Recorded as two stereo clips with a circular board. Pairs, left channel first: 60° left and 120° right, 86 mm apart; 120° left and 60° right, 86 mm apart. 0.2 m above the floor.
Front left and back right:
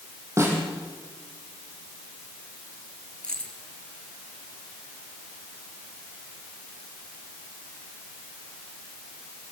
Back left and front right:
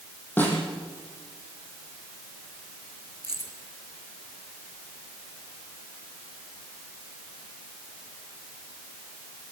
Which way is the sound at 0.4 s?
175° right.